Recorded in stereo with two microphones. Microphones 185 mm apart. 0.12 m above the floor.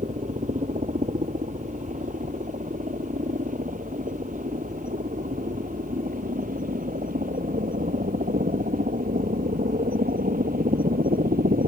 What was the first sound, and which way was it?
A helicopter, 45° right (ahead or behind).